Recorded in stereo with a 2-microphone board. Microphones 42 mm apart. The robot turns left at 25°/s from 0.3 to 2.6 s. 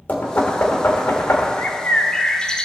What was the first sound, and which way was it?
Knocking, 45° left (ahead or behind).